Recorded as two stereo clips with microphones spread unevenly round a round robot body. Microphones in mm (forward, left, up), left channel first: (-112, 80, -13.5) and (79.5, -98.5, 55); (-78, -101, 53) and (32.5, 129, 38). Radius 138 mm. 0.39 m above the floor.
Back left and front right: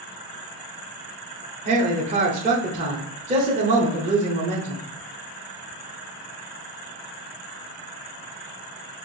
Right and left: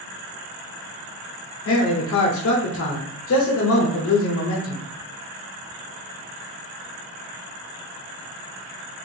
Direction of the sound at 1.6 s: 110° right.